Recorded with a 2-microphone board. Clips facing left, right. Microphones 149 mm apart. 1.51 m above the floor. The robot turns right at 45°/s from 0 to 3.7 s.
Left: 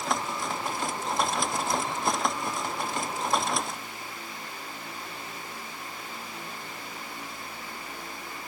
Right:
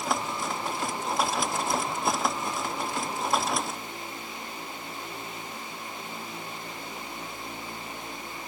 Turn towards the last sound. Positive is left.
No sound to turn to.